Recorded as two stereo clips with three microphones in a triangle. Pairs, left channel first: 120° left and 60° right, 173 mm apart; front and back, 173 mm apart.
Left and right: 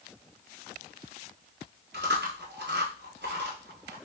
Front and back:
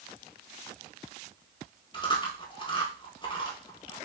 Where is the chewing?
60° right, 1.2 m.